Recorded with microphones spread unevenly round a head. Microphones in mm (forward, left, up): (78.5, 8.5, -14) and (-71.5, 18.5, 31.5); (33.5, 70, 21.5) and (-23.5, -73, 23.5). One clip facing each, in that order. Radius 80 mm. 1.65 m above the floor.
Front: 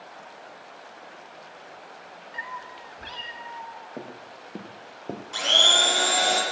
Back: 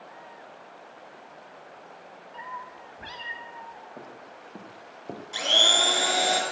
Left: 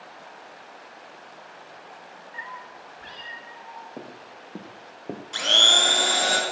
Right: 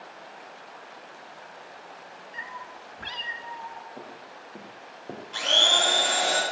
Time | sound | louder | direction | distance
2.3 | a cat meowing | even, left 1 dB | 90° right | 1.4 m
4.0 | footsteps | front 4 dB, left 2 dB | 40° left | 2 m
5.3 | a blender | even, even | 105° left | 4 m